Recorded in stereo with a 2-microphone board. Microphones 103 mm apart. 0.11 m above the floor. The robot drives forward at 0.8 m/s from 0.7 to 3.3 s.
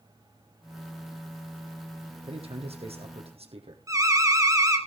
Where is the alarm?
30° right (ahead or behind), 1.9 m.